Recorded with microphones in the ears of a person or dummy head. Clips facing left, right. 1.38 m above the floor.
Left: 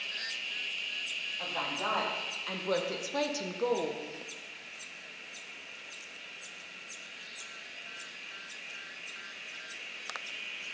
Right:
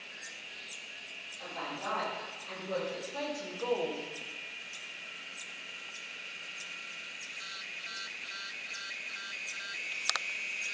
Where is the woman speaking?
75° left (ahead or behind), 3 m; by 4.1 s 5° left (ahead or behind), 1.1 m.